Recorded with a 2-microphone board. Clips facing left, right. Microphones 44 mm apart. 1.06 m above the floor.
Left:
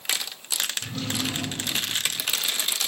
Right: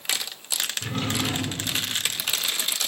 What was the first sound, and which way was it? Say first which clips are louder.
A drawer: right 2 dB; 45° right (ahead or behind).